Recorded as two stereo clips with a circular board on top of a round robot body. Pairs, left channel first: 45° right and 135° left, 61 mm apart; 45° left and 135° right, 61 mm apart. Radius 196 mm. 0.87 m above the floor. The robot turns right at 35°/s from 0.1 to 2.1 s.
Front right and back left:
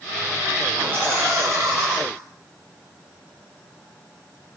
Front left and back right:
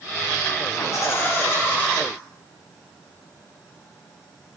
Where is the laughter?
75° left, 3.5 m; by 2.0 s 115° left, 3.5 m.